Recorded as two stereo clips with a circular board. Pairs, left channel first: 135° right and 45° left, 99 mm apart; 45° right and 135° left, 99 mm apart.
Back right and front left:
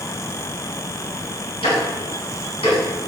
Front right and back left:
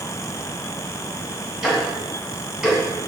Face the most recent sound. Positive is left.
turn(degrees=-140)